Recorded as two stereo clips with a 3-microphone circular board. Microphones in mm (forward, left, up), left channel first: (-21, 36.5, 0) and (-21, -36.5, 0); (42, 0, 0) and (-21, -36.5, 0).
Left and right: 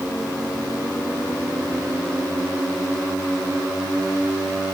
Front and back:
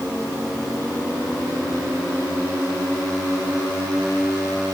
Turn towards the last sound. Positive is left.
No sound to turn to.